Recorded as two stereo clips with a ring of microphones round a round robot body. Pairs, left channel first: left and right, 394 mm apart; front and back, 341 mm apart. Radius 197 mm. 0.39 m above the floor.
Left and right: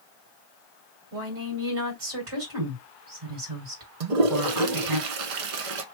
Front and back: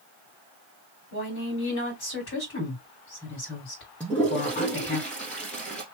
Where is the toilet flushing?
85° right, 0.9 m.